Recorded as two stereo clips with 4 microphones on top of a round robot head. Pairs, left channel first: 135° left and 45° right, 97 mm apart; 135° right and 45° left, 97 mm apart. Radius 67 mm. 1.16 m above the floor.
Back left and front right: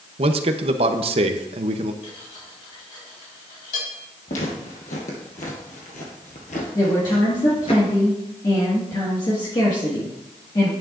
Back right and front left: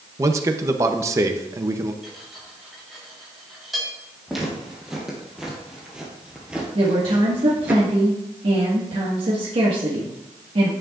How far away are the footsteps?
About 3 m.